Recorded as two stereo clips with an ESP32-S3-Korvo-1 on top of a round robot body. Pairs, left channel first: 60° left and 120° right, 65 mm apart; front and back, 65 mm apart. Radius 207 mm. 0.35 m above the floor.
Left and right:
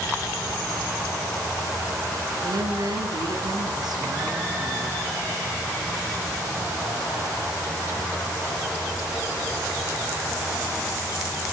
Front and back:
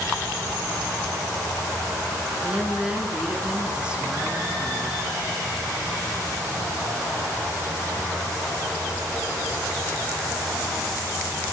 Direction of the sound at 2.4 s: 105° right.